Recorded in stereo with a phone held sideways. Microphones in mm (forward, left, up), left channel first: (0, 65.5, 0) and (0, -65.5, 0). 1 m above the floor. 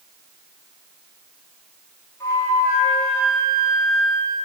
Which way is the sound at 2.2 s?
30° left (ahead or behind).